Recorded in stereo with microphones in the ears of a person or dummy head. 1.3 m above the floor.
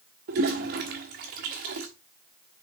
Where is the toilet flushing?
40° right (ahead or behind), 0.9 m.